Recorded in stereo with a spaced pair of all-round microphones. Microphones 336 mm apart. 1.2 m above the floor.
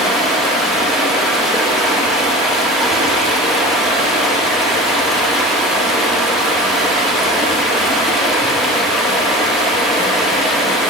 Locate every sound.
0.0 s running water: centre (ahead or behind), 1.0 m